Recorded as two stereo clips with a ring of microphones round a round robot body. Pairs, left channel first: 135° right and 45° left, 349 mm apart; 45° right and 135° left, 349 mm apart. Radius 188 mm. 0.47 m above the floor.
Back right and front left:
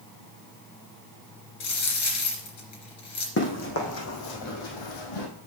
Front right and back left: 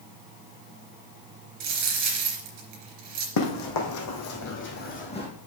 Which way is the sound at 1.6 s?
Straight behind.